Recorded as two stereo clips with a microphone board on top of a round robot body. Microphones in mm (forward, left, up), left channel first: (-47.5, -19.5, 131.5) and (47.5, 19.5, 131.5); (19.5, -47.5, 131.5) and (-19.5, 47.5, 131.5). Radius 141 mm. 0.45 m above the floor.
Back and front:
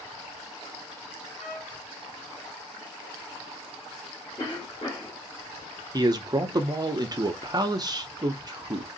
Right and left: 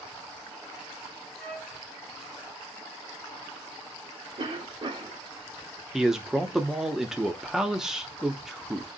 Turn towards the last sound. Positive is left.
turn(degrees=30)